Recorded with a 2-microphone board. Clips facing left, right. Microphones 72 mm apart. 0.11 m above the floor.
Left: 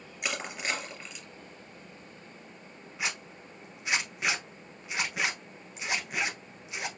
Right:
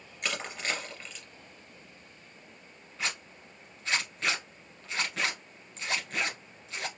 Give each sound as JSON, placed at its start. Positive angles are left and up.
{"t": 0.2, "sound": "crushing", "side_deg": 10, "distance_m": 2.0}
{"t": 3.0, "sound": "a zipper", "side_deg": 15, "distance_m": 1.2}